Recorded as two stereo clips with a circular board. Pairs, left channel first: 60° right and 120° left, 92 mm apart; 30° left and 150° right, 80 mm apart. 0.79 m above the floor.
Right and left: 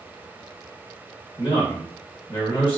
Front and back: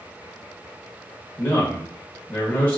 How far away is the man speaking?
About 0.8 m.